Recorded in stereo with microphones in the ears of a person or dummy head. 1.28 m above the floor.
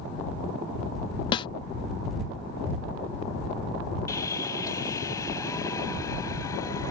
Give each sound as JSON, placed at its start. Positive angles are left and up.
{"t": 1.3, "sound": "a snare drum", "side_deg": 25}
{"t": 4.1, "sound": "sawing", "side_deg": 20}